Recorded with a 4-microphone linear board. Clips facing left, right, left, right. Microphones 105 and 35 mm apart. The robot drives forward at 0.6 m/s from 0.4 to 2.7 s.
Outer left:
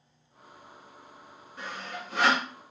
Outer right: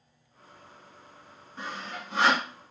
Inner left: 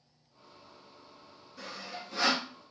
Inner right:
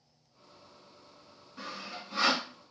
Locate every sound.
1.6 s sawing: 30° right (ahead or behind), 1.9 m; by 2.5 s 25° right (ahead or behind), 2.5 m